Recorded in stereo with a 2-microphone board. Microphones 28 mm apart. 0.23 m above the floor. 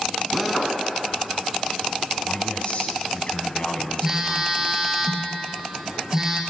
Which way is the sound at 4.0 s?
15° right (ahead or behind).